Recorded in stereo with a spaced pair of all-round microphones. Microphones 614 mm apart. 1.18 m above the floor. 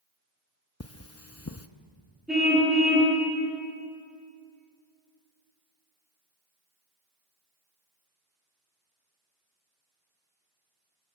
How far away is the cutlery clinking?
About 0.8 m.